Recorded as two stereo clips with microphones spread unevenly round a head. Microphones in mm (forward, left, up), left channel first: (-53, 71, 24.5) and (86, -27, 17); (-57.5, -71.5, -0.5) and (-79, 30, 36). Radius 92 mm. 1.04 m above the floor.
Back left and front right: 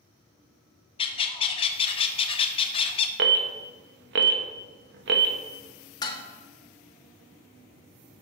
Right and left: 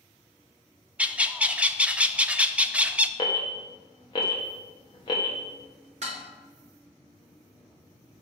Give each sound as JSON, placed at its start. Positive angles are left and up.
{"t": 1.0, "sound": "a bird", "azimuth_deg": -165, "distance_m": 0.6}
{"t": 3.2, "sound": "an alarm", "azimuth_deg": -20, "distance_m": 0.9}
{"t": 6.0, "sound": "dishes clattering", "azimuth_deg": 75, "distance_m": 1.1}